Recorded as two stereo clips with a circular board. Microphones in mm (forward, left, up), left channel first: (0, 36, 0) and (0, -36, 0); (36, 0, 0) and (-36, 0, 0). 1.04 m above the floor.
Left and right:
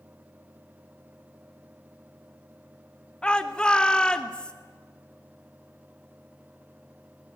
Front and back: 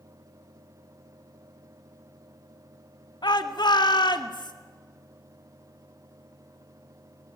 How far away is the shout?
About 1.9 m.